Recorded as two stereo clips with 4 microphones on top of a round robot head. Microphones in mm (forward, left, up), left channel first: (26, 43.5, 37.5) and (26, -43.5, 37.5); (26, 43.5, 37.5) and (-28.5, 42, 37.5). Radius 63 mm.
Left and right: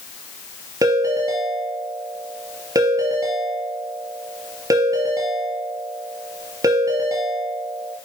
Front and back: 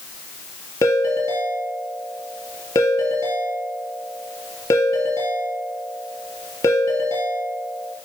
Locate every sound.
0.8 s a ringtone: 40° right, 3.5 m